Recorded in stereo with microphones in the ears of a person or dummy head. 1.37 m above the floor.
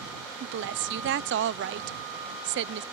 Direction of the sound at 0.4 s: 60° right (ahead or behind).